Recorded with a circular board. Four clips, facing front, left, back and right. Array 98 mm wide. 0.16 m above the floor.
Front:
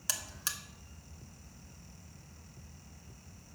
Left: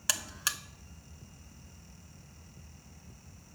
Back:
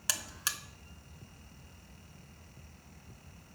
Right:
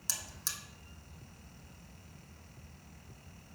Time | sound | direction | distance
0.1 | a buzzer | 110° left | 0.5 m